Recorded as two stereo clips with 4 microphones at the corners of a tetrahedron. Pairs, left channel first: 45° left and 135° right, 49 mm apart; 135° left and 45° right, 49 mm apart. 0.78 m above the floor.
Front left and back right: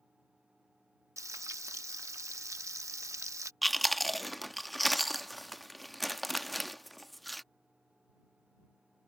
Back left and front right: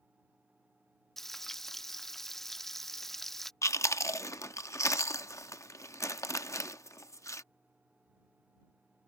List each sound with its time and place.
1.2 s frying: 140° right
3.6 s chewing: 135° left